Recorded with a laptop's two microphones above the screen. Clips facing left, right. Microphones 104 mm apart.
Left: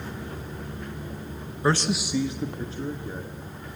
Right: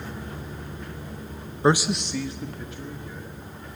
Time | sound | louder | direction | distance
1.6 | a man speaking | right 3 dB | 25° right (ahead or behind) | 0.6 m